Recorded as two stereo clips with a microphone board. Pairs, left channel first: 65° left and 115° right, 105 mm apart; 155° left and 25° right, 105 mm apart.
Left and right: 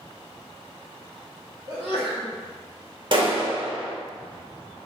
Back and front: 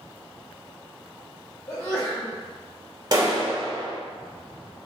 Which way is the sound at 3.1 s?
75° right.